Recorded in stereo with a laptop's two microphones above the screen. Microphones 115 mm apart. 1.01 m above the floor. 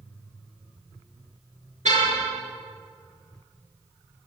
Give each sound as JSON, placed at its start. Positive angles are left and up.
{"t": 1.9, "sound": "a car horn", "side_deg": -75, "distance_m": 6.0}